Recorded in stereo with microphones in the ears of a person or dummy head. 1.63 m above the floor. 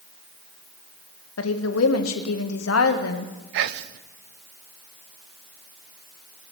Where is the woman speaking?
80° left, 1.1 m.